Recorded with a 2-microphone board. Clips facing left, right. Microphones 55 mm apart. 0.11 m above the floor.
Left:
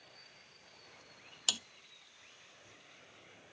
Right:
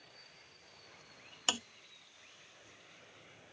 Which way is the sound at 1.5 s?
35° right (ahead or behind).